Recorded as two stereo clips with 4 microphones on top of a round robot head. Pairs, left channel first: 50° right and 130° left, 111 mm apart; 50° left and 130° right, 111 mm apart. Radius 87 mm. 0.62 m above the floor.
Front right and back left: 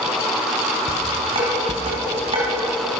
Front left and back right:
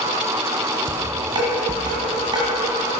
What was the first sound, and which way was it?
Dishes clattering, 175° left.